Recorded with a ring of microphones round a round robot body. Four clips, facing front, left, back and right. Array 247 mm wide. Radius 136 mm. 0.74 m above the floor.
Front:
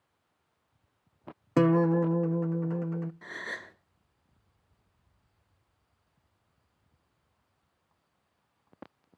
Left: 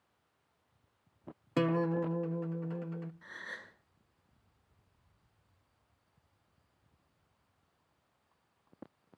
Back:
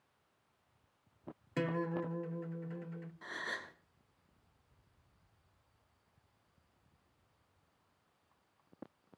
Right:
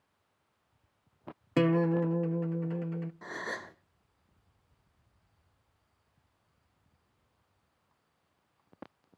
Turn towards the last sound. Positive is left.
turn(degrees=-70)